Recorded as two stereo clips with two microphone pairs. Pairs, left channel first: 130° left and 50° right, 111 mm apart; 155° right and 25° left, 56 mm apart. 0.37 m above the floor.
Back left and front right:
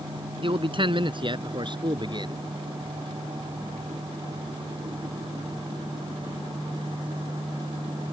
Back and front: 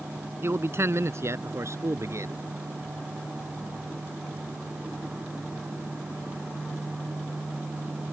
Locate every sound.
0.4 s a man speaking: 15° right; by 2.4 s straight ahead